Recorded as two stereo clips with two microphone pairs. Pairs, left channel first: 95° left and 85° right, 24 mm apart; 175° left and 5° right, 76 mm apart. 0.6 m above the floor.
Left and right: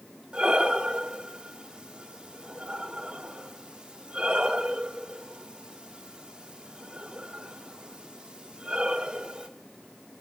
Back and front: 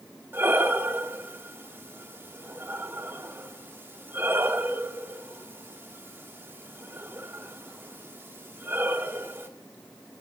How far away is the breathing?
About 1.1 m.